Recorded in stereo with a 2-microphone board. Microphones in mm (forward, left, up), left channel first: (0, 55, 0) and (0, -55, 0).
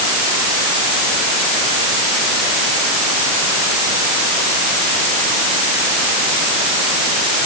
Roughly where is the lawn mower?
No lawn mower in this recording.